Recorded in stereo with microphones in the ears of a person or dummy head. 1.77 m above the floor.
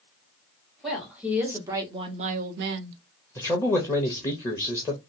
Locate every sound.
0.8 s a woman speaking: centre (ahead or behind), 1.8 m; by 3.0 s 75° right (ahead or behind), 0.8 m
3.4 s a man speaking: 15° left (ahead or behind), 0.7 m